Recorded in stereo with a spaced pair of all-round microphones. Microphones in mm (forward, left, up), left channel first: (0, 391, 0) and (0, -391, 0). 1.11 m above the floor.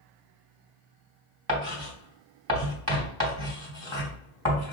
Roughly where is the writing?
Right.